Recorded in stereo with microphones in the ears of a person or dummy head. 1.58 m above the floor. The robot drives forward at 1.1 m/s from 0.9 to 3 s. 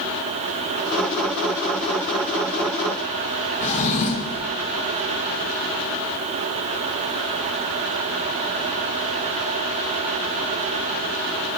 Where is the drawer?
35° left (ahead or behind), 1.0 m.